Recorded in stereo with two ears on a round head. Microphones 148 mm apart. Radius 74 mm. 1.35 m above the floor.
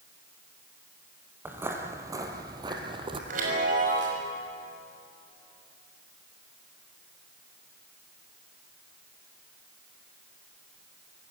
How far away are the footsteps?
About 2.5 m.